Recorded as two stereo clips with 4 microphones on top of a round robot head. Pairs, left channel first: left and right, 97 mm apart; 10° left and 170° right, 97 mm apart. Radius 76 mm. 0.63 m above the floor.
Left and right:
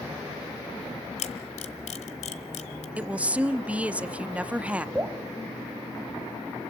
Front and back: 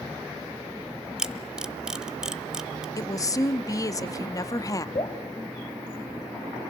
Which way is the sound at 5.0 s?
25° right.